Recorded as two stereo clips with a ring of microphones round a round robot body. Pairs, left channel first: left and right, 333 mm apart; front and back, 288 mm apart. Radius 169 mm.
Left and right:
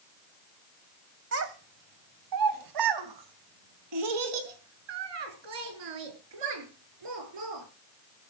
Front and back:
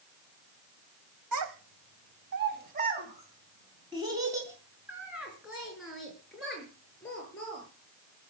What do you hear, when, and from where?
1.3 s a child speaking: 140° right, 2.5 m; by 7.6 s 85° right, 7.5 m